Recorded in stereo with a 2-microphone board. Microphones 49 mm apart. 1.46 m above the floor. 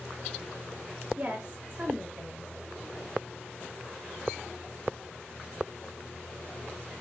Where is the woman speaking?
20° right (ahead or behind), 0.6 m.